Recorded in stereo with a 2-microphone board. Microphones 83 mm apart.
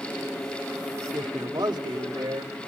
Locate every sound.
1.1 s a man speaking: 60° right (ahead or behind), 1.7 m; by 2.5 s 65° right (ahead or behind), 2.5 m